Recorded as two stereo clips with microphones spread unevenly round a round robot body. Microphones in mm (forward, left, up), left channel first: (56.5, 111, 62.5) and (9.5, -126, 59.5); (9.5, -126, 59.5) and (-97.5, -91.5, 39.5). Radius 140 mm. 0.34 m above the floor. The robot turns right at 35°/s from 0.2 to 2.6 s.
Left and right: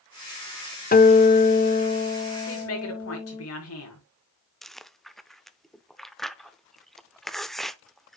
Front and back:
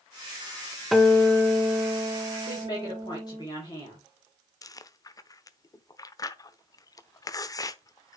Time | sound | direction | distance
0.9 | a guitar | 85° left | 0.9 m
2.5 | a woman speaking | 50° left | 5.5 m
4.6 | chewing | 10° right | 0.8 m